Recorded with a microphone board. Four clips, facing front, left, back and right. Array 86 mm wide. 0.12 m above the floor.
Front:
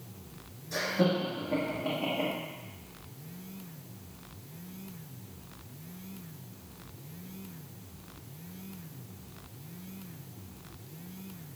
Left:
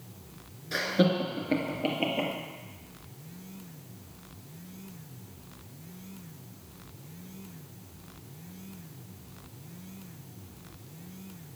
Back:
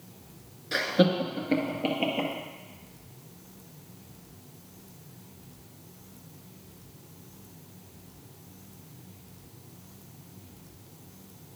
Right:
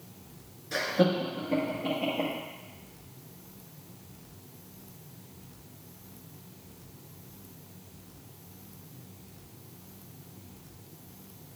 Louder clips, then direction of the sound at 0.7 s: Even, back 4 dB; 170° left.